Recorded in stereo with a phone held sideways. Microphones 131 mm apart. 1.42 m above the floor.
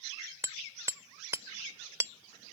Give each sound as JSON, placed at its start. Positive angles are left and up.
{"t": 0.4, "sound": "hammering", "side_deg": -20}